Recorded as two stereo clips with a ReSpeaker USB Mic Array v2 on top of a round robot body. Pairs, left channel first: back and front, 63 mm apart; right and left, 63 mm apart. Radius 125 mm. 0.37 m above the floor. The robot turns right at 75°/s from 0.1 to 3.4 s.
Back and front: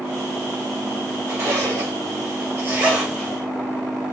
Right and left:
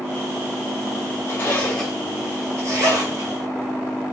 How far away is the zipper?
About 2.5 m.